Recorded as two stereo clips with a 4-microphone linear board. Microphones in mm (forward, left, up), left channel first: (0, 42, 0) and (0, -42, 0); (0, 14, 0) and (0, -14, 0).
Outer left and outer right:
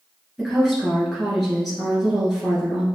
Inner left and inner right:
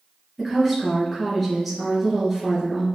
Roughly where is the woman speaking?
Centre.